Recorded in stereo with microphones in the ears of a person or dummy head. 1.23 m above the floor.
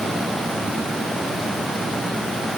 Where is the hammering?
I don't hear hammering.